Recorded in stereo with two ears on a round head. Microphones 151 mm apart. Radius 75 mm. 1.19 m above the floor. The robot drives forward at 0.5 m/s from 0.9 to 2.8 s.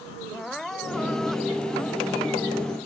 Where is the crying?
5° left (ahead or behind).